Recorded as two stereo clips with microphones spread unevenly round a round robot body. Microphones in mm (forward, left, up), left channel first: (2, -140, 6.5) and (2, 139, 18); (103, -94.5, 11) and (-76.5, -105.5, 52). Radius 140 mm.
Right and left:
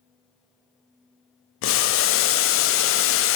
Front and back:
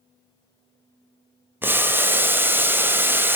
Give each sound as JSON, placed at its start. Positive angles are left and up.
{"t": 1.6, "sound": "boiling", "azimuth_deg": -90, "distance_m": 0.9}